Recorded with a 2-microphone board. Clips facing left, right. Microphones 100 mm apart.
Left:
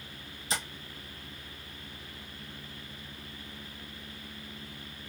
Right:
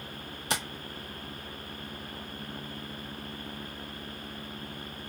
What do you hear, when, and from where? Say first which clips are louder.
0.5 s tapping: right 3 dB; 65° right (ahead or behind), 0.7 m